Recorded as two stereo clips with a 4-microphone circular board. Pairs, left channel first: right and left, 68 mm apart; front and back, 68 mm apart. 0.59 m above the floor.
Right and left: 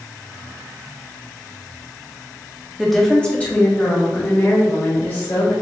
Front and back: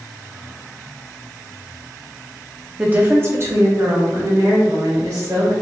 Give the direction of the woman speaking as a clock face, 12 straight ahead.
6 o'clock.